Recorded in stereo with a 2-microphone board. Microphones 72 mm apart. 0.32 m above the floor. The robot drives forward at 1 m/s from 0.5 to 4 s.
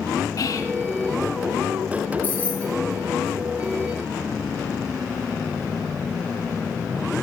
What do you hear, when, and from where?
0.4 s whispering: 55° left (ahead or behind), 3 m; by 0.7 s 50° left (ahead or behind), 3 m
2.2 s keys jangling: 25° left (ahead or behind), 4.5 m